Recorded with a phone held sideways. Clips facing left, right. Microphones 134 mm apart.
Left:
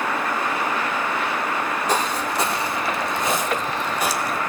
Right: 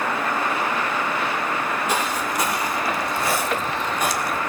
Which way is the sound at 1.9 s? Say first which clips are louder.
Left 1 dB; 35° left (ahead or behind).